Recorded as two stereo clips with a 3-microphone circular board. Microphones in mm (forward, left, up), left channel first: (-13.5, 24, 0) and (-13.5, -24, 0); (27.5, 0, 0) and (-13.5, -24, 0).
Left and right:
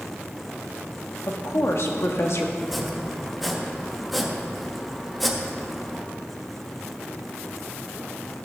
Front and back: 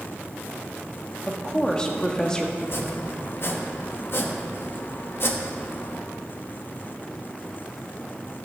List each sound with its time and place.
1.3 s a woman speaking: 105° left, 1.4 m
2.6 s chopping: straight ahead, 1.1 m